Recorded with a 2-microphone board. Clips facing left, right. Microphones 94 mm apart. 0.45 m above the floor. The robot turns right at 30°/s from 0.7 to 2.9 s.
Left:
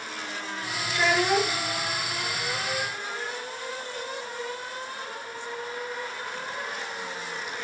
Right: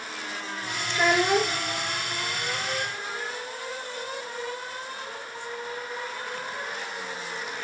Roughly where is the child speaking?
Centre.